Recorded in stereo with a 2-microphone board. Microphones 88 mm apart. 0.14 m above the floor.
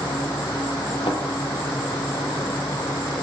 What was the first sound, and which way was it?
An insect, 75° left (ahead or behind).